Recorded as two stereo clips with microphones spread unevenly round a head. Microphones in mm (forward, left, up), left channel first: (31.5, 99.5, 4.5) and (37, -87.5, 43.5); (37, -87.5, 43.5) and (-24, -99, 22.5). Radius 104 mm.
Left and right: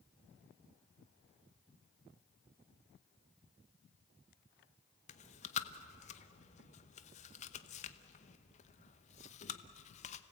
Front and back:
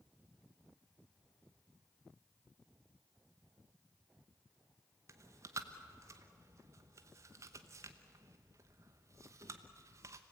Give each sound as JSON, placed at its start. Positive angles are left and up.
{"t": 5.1, "sound": "chewing", "azimuth_deg": 145, "distance_m": 0.8}